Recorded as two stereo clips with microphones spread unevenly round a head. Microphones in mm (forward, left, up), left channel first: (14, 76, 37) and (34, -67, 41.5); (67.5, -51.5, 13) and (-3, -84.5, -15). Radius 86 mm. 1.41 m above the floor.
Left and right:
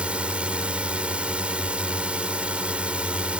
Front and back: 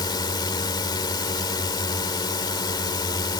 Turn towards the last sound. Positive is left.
turn(degrees=0)